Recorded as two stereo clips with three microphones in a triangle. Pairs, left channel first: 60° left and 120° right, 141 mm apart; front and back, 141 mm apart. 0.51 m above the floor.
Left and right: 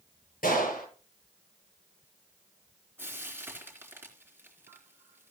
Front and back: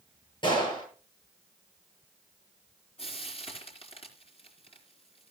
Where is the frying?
45° right, 3 m.